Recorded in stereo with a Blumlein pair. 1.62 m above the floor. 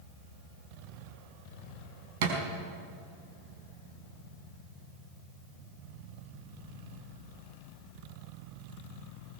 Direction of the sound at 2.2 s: 50° right.